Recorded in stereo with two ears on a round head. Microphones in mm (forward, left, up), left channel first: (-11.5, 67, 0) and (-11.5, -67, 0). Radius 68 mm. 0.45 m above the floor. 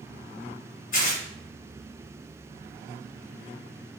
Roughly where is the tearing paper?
Left.